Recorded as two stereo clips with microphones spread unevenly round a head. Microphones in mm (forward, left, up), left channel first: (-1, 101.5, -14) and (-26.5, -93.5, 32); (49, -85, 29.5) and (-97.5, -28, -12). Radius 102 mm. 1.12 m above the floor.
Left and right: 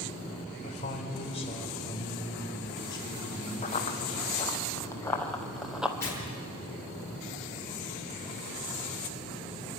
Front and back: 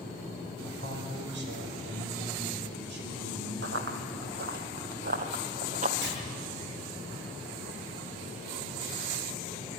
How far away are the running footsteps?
About 1.9 m.